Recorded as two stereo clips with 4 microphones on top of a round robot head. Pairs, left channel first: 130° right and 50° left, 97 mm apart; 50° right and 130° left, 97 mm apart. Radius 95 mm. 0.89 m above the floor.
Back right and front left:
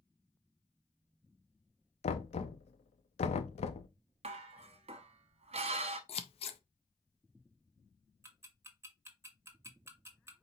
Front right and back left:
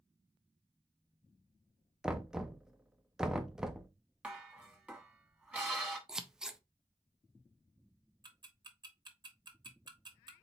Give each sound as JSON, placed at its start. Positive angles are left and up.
{"t": 2.0, "sound": "knocking", "azimuth_deg": -145, "distance_m": 0.5}
{"t": 4.2, "sound": "dishes clattering", "azimuth_deg": 50, "distance_m": 1.0}
{"t": 6.1, "sound": "scissors", "azimuth_deg": -145, "distance_m": 0.6}
{"t": 8.2, "sound": "ticking", "azimuth_deg": 105, "distance_m": 1.4}